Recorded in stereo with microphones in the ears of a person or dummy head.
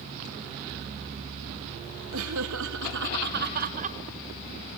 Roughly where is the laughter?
Right.